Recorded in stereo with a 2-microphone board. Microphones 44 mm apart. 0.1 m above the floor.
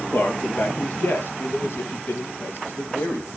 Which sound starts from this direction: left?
A man speaking, at 0.1 s.